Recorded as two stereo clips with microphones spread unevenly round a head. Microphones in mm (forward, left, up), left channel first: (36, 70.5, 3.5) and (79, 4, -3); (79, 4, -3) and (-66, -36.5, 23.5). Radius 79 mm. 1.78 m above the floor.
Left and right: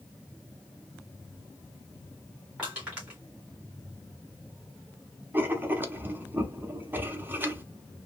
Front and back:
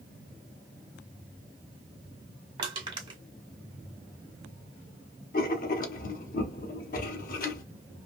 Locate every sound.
2.6 s crushing: 135° right, 1.5 m
5.3 s writing: straight ahead, 0.8 m